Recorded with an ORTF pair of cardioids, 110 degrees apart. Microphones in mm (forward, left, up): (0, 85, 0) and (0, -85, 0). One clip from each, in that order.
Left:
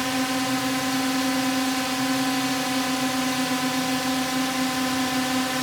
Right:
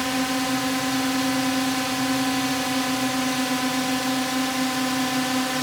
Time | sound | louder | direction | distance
0.0 | a drone | right 1 dB | 5° right | ?